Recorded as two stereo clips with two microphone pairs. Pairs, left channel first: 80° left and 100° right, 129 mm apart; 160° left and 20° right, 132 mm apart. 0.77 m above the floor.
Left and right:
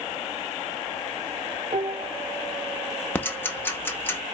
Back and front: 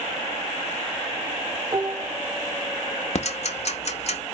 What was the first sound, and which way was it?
Dishes clattering, 70° right.